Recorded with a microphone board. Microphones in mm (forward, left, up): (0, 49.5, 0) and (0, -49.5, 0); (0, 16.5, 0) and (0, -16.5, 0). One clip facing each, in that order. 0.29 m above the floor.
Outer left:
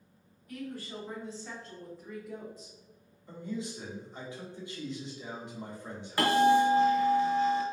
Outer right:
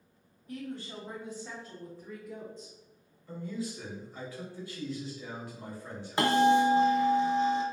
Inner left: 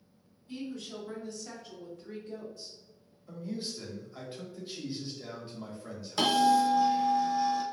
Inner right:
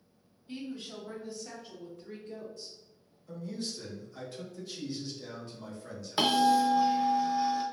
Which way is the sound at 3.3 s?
20° left (ahead or behind).